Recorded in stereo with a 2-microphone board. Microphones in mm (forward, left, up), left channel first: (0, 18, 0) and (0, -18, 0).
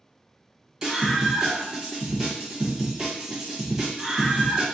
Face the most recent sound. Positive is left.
turn(degrees=-10)  # may be behind; listen again after turning